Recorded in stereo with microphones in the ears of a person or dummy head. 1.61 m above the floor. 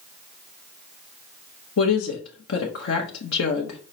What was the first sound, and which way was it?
A woman speaking, 80° left.